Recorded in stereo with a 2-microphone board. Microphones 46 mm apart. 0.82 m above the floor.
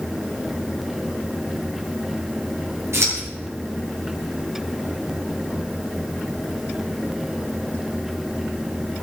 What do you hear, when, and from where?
2.9 s scissors: 75° right (ahead or behind), 7.5 m